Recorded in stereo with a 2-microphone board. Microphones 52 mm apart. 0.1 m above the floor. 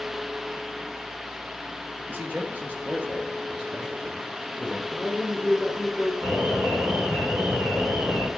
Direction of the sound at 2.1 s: 45° right (ahead or behind).